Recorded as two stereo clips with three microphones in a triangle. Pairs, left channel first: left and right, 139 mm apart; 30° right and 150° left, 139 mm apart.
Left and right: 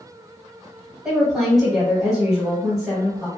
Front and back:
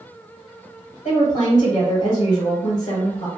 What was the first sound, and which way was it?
A woman speaking, straight ahead.